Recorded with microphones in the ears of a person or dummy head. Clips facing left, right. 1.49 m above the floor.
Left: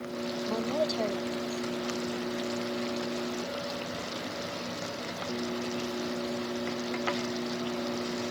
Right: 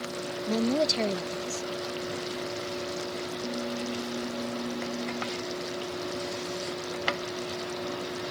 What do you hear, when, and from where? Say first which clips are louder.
0.5 s a woman speaking: right 5 dB; 35° right (ahead or behind)